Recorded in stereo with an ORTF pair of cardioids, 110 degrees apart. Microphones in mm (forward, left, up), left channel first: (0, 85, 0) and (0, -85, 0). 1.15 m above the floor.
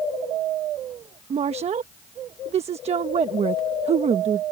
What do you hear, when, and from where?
1.3 s a woman speaking: 40° right